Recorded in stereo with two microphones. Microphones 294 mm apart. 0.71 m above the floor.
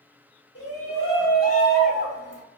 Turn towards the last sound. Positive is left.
turn(degrees=-50)  # may be behind; listen again after turning